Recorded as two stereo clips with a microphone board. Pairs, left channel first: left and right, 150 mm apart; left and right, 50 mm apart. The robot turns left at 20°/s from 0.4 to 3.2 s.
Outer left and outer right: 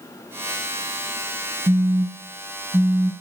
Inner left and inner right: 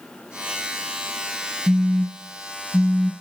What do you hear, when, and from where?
1.7 s a phone buzzing: 40° right (ahead or behind), 0.6 m; by 3.1 s 25° right (ahead or behind), 0.6 m